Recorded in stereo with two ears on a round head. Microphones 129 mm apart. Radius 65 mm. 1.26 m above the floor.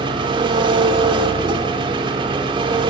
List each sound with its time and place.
0.0 s an engine running: 35° right (ahead or behind), 1.0 m